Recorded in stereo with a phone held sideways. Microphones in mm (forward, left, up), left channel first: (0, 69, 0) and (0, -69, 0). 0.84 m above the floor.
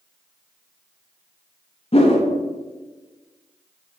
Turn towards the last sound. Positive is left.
turn(degrees=45)  # may be behind; listen again after turning